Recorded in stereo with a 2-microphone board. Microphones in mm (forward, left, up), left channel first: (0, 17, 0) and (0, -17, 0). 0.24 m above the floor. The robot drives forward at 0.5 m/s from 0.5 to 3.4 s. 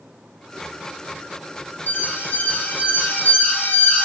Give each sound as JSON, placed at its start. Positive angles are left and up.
{"t": 1.9, "sound": "an alarm", "side_deg": 60, "distance_m": 6.0}